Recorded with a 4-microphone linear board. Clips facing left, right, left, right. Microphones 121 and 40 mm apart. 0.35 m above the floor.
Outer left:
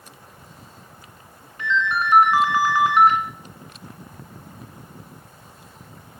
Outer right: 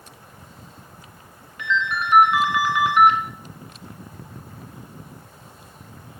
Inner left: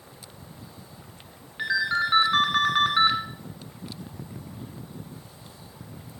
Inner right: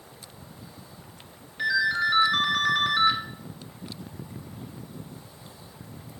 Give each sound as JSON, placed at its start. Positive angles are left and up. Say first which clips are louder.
{"t": 1.6, "sound": "a ringtone", "louder": "outer left 2 dB, inner right 1 dB", "side_deg": 35, "distance_m": 1.6}